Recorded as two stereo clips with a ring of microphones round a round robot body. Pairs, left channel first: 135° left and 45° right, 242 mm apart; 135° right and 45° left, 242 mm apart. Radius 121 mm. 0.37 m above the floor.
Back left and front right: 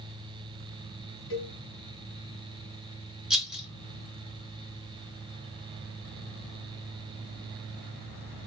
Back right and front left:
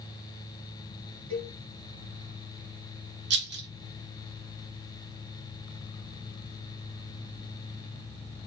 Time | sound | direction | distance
1.3 | a cowbell | 100° left | 3 m
3.3 | a rattle | 40° left | 1.2 m